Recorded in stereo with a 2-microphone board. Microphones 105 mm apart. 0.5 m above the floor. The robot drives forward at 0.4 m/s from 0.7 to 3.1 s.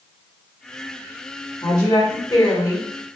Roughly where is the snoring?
I don't hear snoring.